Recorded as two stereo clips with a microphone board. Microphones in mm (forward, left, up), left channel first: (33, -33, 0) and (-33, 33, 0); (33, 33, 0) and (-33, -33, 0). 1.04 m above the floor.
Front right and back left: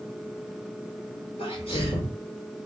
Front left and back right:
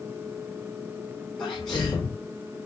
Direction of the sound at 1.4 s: 25° right.